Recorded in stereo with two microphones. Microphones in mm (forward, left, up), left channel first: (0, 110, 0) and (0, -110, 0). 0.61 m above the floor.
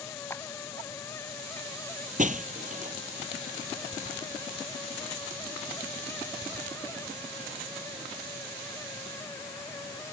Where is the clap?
10° left (ahead or behind).